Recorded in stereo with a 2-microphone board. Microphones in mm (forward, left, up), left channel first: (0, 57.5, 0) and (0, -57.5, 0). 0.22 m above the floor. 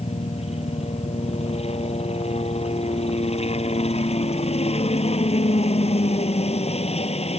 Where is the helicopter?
65° left (ahead or behind).